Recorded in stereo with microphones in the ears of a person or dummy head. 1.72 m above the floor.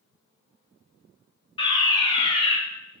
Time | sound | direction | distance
1.6 | a fire alarm | 25° left (ahead or behind) | 1.4 m